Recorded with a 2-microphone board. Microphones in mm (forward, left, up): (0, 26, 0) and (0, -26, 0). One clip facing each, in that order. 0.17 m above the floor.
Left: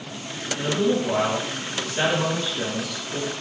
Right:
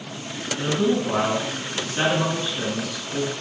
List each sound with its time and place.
0.6 s a man speaking: 35° right (ahead or behind), 2 m